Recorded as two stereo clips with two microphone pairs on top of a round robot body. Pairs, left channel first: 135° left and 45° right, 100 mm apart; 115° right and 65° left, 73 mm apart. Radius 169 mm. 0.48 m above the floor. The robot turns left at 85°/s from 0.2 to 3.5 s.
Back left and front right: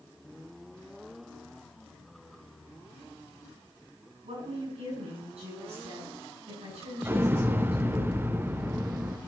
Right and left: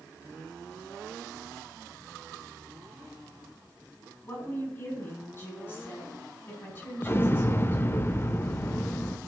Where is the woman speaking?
55° right, 7 m.